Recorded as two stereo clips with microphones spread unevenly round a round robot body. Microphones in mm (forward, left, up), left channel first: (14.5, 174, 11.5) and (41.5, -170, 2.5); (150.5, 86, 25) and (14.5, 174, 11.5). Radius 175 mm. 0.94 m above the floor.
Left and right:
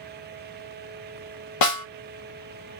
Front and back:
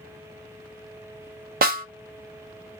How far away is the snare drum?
About 0.7 m.